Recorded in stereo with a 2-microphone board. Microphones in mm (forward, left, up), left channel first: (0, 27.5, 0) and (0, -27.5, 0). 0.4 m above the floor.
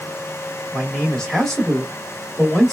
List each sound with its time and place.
0.7 s a man speaking: 10° left (ahead or behind), 1.5 m